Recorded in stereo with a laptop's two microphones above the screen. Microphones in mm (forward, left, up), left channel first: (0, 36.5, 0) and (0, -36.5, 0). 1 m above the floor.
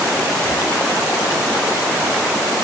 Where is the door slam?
No door slam in this recording.